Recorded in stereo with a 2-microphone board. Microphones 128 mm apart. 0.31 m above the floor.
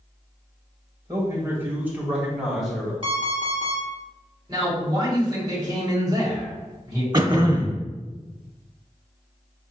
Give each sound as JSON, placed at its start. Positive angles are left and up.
{"t": 1.1, "sound": "a man speaking", "side_deg": -25, "distance_m": 1.3}
{"t": 3.0, "sound": "an alarm clock", "side_deg": -45, "distance_m": 1.4}
{"t": 4.5, "sound": "a man speaking", "side_deg": -30, "distance_m": 1.9}
{"t": 7.1, "sound": "throat clearing", "side_deg": -35, "distance_m": 0.6}